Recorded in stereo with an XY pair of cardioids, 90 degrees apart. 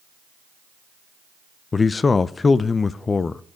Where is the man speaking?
35° left, 0.6 m.